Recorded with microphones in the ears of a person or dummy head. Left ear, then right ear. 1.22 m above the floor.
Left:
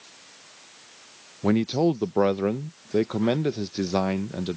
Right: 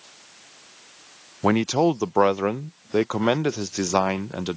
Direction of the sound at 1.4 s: 45° right (ahead or behind).